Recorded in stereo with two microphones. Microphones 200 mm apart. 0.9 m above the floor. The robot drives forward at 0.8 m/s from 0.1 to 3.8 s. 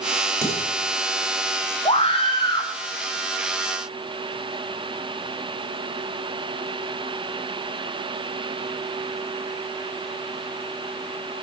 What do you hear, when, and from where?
0.4 s dishes clattering: 15° left (ahead or behind), 2.5 m; by 0.7 s 10° left (ahead or behind), 2.5 m
1.9 s a scream: 30° left (ahead or behind), 0.8 m; by 2.7 s 20° left (ahead or behind), 1.2 m